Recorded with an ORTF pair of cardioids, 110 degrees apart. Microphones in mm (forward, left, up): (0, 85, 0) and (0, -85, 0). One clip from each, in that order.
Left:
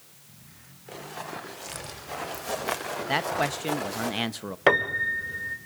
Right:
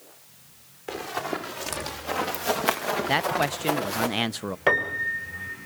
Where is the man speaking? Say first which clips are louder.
Right 1 dB; 15° right, 0.6 m.